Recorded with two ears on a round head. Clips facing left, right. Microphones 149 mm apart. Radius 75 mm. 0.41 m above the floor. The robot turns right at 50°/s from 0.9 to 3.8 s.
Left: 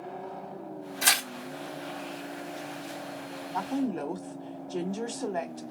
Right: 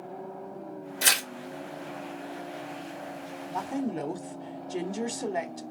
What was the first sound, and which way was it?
Tearing paper, 40° right (ahead or behind).